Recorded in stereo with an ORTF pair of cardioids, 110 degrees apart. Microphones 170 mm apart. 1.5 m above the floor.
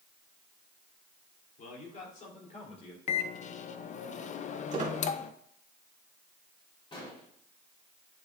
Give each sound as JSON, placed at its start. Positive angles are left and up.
{"t": 1.6, "sound": "a man speaking", "azimuth_deg": 55, "distance_m": 3.0}
{"t": 3.1, "sound": "a microwave", "azimuth_deg": 45, "distance_m": 0.6}
{"t": 4.7, "sound": "a squeak", "azimuth_deg": -45, "distance_m": 1.9}
{"t": 6.9, "sound": "an explosion", "azimuth_deg": 30, "distance_m": 3.5}